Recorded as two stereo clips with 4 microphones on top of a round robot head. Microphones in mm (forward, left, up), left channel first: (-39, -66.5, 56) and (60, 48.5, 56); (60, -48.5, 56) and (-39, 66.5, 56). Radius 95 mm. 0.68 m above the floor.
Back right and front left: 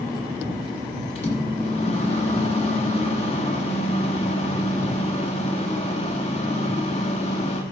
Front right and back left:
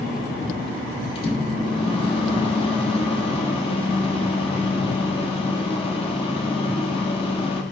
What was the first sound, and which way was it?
A microwave, 95° right.